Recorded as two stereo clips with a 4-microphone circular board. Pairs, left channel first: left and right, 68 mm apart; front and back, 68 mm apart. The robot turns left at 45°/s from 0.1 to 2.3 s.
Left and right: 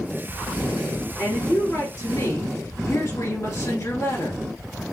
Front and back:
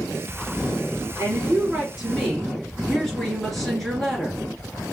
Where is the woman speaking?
135° left, 2.5 m; by 4.9 s 85° left, 2.5 m.